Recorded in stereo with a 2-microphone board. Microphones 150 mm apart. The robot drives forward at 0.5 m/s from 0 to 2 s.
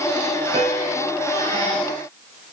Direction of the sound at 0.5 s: 45° right (ahead or behind).